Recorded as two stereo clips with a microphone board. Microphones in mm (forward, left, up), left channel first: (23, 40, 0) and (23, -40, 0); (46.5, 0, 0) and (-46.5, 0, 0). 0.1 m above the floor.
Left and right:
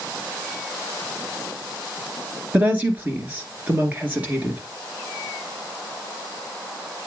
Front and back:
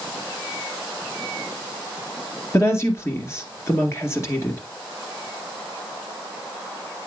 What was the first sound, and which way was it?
A woman speaking, 35° right.